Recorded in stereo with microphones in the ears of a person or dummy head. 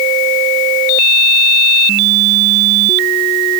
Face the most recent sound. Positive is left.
No sound to turn to.